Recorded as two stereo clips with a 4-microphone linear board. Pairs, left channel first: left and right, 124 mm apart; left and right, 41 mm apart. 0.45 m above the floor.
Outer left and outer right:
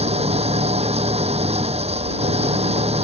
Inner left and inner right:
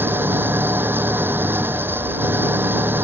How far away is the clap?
I don't hear a clap.